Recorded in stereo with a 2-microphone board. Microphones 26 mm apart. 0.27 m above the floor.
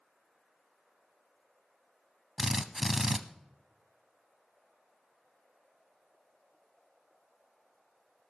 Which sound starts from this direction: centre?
A drill, at 2.4 s.